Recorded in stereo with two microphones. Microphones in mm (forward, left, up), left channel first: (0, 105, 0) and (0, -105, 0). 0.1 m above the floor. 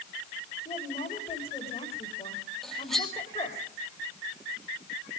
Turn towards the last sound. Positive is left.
turn(degrees=0)  # may be behind; listen again after turning